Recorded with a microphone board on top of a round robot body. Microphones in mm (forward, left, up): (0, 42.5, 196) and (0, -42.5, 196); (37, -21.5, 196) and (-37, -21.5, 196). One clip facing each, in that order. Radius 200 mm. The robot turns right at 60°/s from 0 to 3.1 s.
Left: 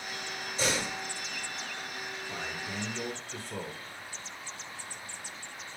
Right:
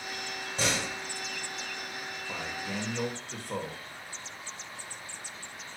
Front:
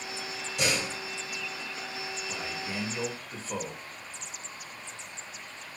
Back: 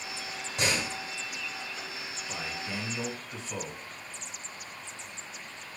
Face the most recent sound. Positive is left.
turn(degrees=-55)